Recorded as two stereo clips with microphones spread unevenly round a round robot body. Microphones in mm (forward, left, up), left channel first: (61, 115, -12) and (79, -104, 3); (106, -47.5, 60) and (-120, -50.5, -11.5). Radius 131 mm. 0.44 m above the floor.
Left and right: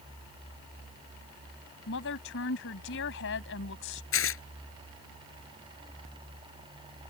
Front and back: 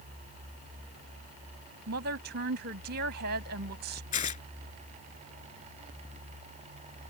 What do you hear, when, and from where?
1.9 s a woman speaking: 140° left
4.1 s tearing paper: 65° left